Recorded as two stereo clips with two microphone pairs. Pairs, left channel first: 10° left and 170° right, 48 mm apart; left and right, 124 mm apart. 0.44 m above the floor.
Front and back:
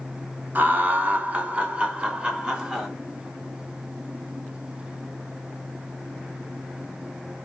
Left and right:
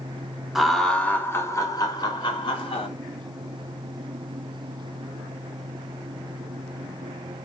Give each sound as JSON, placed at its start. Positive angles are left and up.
{"t": 0.6, "sound": "laughter", "azimuth_deg": -175, "distance_m": 1.1}